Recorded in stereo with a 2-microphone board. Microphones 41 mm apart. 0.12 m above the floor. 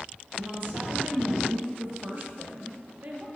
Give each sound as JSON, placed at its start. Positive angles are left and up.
{"t": 0.3, "sound": "a woman speaking", "side_deg": -55, "distance_m": 2.0}